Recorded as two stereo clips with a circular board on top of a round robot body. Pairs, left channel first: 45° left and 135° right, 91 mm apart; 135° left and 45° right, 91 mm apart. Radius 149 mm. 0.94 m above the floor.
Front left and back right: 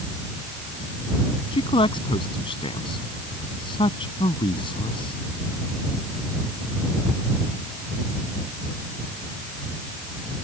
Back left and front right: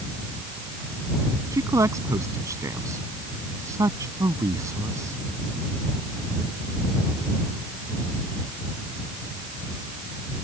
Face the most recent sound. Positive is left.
turn(degrees=15)